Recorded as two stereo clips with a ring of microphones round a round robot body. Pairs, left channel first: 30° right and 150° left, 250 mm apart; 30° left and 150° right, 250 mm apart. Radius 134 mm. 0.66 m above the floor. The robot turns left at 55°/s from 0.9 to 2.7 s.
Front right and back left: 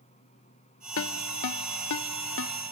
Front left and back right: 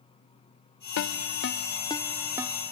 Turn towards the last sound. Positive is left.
turn(degrees=-90)